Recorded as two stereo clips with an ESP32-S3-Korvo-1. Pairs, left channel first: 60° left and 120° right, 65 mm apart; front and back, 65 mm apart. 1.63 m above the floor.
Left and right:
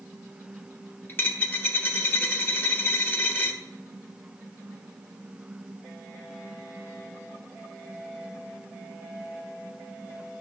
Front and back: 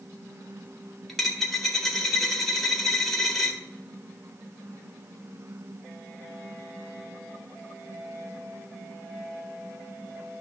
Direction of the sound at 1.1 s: 80° left.